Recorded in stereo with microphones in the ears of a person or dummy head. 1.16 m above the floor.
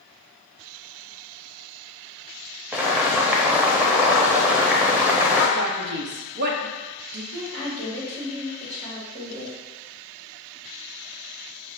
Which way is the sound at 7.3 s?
45° right (ahead or behind).